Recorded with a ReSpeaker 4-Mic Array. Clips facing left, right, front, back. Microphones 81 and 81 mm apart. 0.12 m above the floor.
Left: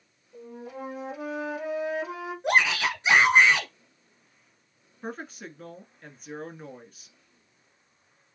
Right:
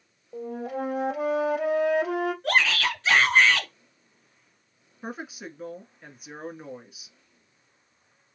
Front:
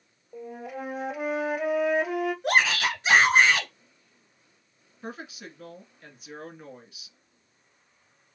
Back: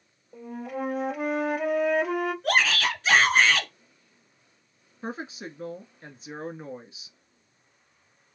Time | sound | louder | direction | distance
0.3 | a flute | right 8 dB, back 3 dB | 85° right | 2.0 m
2.4 | a shout | left 5 dB, front 1 dB | 50° left | 1.3 m
5.0 | a woman speaking | right 1 dB, back 4 dB | 165° right | 1.4 m